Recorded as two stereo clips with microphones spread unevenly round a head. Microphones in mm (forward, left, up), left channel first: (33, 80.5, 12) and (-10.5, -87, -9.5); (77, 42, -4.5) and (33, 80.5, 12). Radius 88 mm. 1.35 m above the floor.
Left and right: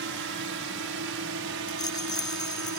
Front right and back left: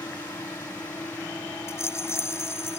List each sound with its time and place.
0.0 s a drone: 100° right; by 2.8 s 110° right
1.7 s a rattle: 10° left